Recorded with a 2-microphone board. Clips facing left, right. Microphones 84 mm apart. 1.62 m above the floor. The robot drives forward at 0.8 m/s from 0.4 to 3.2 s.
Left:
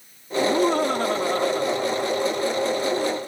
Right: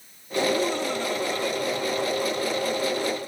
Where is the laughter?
55° left (ahead or behind); by 3.2 s 40° left (ahead or behind).